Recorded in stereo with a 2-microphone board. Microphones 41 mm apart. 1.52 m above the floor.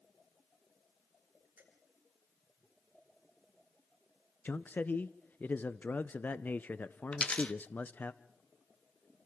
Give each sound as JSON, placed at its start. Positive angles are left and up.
{"t": 1.6, "sound": "a finger snap", "side_deg": -60, "distance_m": 9.0}
{"t": 4.5, "sound": "a man speaking", "side_deg": 50, "distance_m": 0.5}
{"t": 7.1, "sound": "a dropped coin", "side_deg": 30, "distance_m": 1.0}